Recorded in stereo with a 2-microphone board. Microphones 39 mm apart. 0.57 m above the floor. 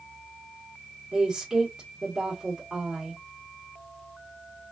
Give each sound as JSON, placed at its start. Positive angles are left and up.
{"t": 1.1, "sound": "a woman speaking", "side_deg": -15, "distance_m": 1.2}